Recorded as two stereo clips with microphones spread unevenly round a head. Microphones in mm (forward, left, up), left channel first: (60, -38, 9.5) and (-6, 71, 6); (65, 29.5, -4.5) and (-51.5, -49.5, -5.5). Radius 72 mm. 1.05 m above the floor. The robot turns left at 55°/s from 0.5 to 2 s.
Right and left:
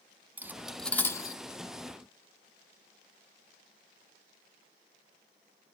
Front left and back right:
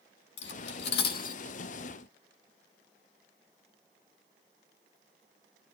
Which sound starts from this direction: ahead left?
Cutlery clinking, at 0.4 s.